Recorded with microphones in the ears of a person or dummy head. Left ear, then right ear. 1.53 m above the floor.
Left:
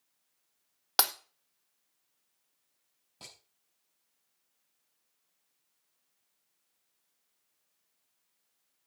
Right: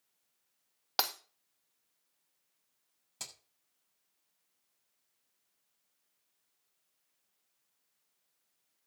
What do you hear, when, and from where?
1.0 s breaking glass: 10° left (ahead or behind), 0.9 m
3.2 s hammering: 65° right (ahead or behind), 6.5 m